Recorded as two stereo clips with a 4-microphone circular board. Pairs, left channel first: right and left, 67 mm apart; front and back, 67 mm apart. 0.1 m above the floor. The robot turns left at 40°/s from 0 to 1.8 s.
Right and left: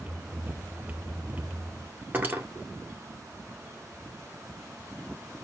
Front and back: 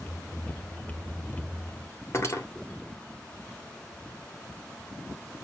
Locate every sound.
2.1 s cutlery clinking: 35° left, 1.4 m